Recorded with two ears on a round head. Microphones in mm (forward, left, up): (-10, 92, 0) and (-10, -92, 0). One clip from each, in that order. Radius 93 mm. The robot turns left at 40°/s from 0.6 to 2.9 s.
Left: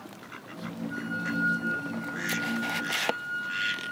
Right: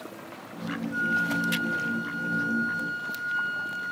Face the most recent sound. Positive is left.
turn(degrees=40)